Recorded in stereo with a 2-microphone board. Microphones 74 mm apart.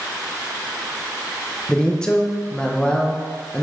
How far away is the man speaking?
About 0.9 m.